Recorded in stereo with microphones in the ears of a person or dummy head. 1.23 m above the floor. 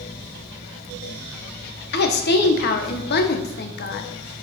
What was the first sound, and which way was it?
A woman speaking, 50° left (ahead or behind).